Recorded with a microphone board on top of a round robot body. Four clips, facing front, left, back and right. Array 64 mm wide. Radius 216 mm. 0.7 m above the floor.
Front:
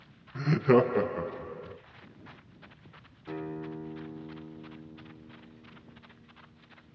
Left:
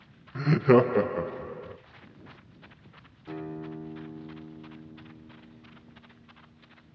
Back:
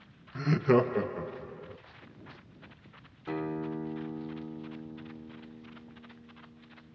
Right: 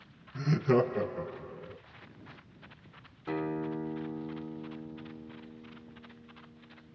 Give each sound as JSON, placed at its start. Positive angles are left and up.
{"t": 0.3, "sound": "laughter", "azimuth_deg": 95, "distance_m": 0.7}
{"t": 3.3, "sound": "a guitar", "azimuth_deg": -125, "distance_m": 0.7}